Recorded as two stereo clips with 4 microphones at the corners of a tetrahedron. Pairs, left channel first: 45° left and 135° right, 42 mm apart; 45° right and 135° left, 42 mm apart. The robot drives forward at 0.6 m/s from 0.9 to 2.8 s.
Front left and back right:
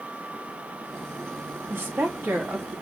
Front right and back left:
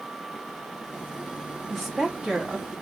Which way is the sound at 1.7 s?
125° right.